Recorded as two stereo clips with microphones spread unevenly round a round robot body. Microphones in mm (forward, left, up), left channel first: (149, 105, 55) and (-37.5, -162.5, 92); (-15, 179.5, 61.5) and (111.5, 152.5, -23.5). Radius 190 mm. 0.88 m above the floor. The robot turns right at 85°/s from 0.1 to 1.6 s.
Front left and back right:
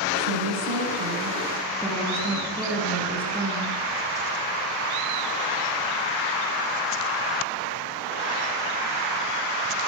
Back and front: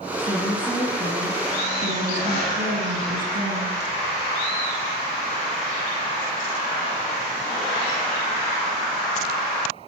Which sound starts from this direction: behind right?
A woman speaking, at 0.2 s.